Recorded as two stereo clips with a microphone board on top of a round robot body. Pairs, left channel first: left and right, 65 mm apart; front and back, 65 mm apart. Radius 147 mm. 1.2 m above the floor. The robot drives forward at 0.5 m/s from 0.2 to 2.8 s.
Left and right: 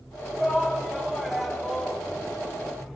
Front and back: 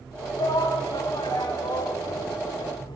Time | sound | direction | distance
0.4 | a shout | straight ahead | 6 m